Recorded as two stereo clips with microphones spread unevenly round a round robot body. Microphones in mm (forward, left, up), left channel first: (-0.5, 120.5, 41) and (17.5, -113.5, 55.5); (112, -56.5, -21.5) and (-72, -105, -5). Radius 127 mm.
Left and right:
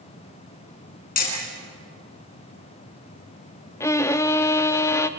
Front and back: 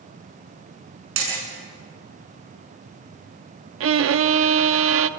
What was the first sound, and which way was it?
Hammering, 150° left.